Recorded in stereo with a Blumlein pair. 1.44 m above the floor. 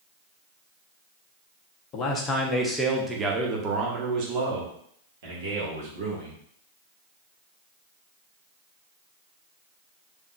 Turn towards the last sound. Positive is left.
turn(degrees=-60)